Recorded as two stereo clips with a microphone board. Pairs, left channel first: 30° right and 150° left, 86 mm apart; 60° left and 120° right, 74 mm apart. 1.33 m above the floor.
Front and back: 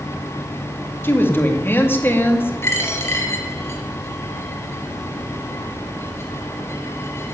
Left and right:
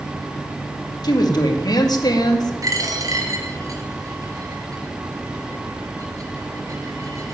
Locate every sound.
1.0 s a woman speaking: 35° left, 2 m
2.6 s a dropped coin: 85° right, 3 m